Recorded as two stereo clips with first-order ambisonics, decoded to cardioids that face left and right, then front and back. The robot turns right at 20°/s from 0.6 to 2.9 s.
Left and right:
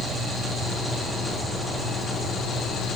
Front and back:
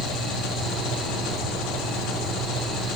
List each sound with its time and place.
0.0 s an engine running: 10° right, 3 m; by 3.0 s 35° left, 3 m